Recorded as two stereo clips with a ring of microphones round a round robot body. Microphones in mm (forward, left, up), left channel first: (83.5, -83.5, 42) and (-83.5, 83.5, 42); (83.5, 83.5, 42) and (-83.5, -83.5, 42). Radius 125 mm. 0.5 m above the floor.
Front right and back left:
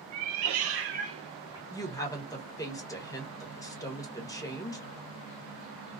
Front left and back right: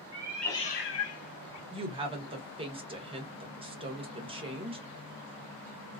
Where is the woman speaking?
100° right, 1.0 m.